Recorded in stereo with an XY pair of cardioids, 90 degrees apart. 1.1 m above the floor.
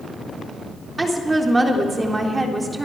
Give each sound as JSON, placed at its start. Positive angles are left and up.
{"t": 1.0, "sound": "a woman speaking", "azimuth_deg": -25, "distance_m": 3.5}